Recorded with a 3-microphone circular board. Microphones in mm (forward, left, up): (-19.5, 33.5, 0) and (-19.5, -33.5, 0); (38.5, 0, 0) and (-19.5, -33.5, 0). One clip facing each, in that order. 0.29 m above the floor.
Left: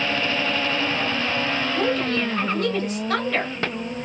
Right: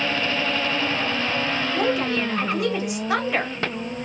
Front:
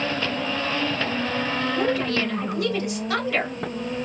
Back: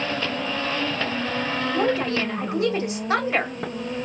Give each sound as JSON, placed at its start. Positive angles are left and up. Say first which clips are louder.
{"t": 1.7, "sound": "a woman speaking", "louder": "right 1 dB, back 2 dB", "azimuth_deg": -150, "distance_m": 1.5}